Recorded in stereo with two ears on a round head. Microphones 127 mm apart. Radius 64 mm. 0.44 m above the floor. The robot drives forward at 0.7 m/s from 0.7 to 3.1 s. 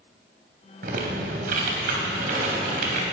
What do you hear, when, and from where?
0.8 s typing on a keyboard: 65° right (ahead or behind), 3 m; by 3.0 s 60° right (ahead or behind), 3.5 m